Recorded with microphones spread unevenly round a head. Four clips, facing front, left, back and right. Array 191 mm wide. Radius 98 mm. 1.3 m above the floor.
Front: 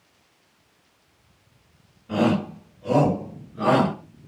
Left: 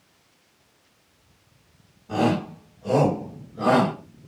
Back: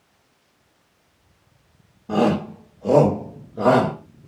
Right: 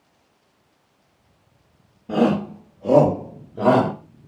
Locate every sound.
2.1 s a shout: 140° right, 4.5 m; by 3.9 s 135° right, 6.5 m